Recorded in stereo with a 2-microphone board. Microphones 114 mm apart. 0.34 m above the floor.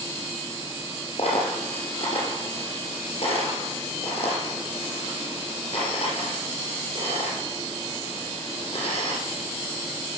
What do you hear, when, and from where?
1.2 s a dropped coin: 65° left (ahead or behind), 3.5 m